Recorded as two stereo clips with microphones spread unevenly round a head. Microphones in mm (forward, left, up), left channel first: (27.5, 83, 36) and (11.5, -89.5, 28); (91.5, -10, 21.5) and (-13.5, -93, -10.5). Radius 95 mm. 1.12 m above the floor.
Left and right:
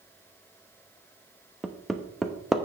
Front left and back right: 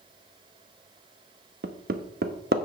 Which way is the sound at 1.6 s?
175° left.